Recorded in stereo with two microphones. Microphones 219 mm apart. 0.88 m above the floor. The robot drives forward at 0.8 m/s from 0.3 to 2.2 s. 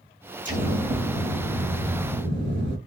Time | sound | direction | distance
0.5 | an explosion | 35° right (ahead or behind) | 1.8 m